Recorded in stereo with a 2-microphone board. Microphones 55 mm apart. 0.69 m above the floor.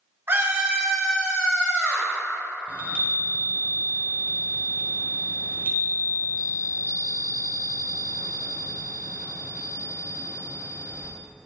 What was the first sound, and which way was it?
A scream, 45° right (ahead or behind).